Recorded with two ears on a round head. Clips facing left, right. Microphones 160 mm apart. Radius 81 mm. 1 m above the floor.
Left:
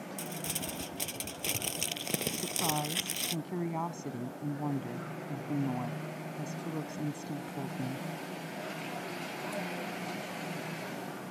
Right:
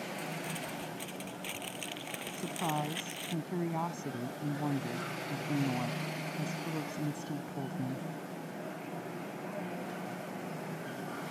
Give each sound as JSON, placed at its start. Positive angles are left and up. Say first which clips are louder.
{"t": 0.2, "sound": "crumpling", "louder": "even", "side_deg": 55}
{"t": 2.4, "sound": "a woman speaking", "louder": "even", "side_deg": 0}